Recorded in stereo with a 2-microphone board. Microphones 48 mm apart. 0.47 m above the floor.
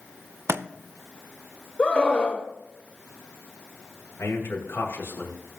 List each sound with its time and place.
0.5 s a thud: 55° right (ahead or behind), 0.6 m
1.8 s a scream: 25° left (ahead or behind), 1.6 m
4.2 s a man speaking: 60° left (ahead or behind), 2.5 m